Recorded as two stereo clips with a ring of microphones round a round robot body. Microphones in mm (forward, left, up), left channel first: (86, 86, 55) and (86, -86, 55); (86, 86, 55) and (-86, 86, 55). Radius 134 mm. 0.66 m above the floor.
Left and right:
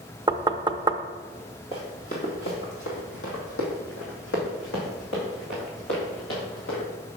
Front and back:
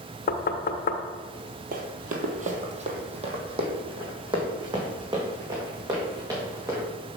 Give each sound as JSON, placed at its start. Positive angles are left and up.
{"t": 0.3, "sound": "knocking", "azimuth_deg": -25, "distance_m": 0.5}
{"t": 1.7, "sound": "running footsteps", "azimuth_deg": 160, "distance_m": 1.1}